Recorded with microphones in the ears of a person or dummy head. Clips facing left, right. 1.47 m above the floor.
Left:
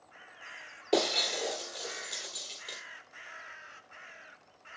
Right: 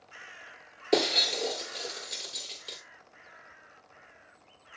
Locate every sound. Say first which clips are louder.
0.9 s breaking glass: right 2 dB; 25° right (ahead or behind), 1.6 m